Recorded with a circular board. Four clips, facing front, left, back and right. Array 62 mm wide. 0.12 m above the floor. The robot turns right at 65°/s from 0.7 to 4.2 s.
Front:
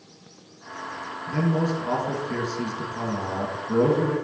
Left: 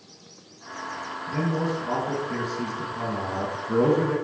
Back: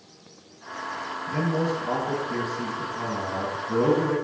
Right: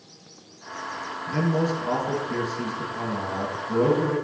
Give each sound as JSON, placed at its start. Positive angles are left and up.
{"t": 1.3, "sound": "a man speaking", "azimuth_deg": -80, "distance_m": 1.1}